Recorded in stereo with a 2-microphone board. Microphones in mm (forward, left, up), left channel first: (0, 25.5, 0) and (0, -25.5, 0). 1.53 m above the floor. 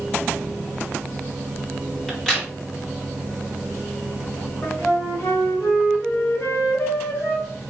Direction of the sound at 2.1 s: 10° left (ahead or behind).